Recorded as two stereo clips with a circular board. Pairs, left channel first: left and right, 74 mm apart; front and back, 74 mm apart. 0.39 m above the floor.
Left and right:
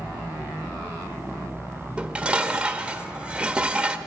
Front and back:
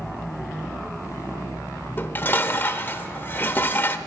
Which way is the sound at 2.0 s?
30° right.